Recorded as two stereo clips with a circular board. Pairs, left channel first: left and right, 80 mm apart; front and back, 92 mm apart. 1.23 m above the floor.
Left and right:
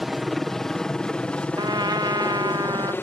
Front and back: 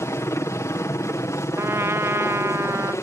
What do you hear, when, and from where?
0.0 s a helicopter: 5° right; by 3.0 s 40° left
1.6 s a trumpet: 120° right